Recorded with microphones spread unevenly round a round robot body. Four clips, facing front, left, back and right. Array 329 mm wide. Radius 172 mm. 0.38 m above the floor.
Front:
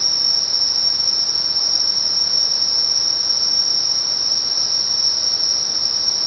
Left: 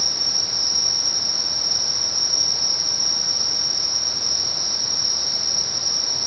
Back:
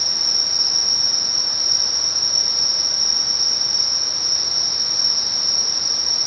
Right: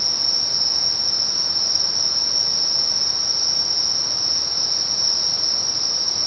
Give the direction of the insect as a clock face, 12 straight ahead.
1 o'clock.